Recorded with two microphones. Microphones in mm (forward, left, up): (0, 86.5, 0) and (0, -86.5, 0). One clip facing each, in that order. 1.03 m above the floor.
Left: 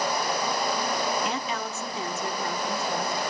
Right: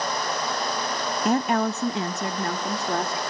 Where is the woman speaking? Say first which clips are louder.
Right 9 dB; 40° right (ahead or behind), 0.6 m; by 3.2 s 70° right (ahead or behind), 2.5 m.